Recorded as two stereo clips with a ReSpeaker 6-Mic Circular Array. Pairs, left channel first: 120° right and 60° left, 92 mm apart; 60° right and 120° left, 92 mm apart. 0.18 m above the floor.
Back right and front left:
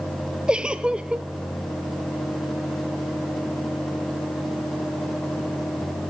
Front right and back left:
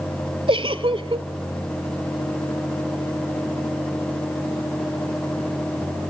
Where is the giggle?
140° left, 0.5 m.